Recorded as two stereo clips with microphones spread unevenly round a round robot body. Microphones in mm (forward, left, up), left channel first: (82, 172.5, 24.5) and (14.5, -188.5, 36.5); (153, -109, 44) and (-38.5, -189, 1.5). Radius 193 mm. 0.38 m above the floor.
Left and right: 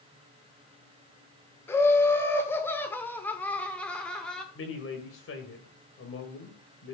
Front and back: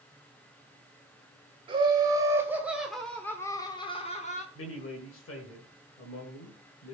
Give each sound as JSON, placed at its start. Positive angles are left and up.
{"t": 1.7, "sound": "laughter", "azimuth_deg": 160, "distance_m": 1.5}
{"t": 4.5, "sound": "a man speaking", "azimuth_deg": 35, "distance_m": 1.8}